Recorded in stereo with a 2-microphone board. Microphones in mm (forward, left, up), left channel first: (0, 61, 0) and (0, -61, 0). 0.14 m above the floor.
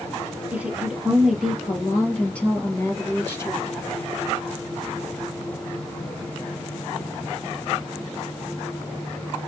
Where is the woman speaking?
10° right (ahead or behind), 2.5 m; by 3.7 s 25° left (ahead or behind), 3 m.